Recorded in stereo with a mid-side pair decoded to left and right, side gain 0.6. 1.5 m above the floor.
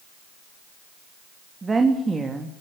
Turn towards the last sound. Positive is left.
turn(degrees=-20)